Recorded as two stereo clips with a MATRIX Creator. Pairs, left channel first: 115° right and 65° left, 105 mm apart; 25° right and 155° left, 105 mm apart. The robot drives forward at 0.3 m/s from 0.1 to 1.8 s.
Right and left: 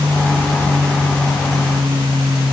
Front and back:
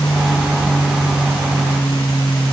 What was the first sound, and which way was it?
An aircraft, 25° left.